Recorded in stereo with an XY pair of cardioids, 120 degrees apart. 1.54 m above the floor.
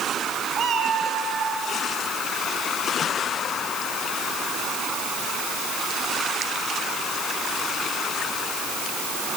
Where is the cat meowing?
35° right, 4.5 m; by 1.6 s 30° right, 5 m.